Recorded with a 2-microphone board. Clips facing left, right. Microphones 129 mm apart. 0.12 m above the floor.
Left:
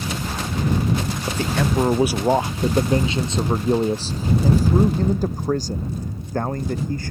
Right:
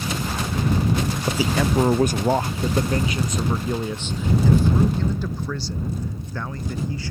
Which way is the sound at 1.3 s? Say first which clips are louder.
Right 1 dB; 10° right (ahead or behind).